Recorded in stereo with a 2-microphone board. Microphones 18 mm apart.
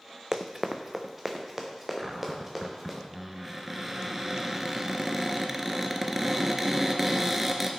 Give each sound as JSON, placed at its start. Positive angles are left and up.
{"t": 0.3, "sound": "running footsteps", "side_deg": -20, "distance_m": 0.6}
{"t": 2.0, "sound": "a cupboard door", "side_deg": -5, "distance_m": 0.9}